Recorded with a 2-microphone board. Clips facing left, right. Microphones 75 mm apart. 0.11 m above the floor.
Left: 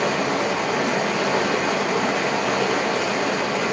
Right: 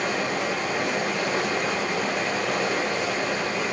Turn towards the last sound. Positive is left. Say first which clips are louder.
# left 4 dB
turn(degrees=75)  # may be behind; listen again after turning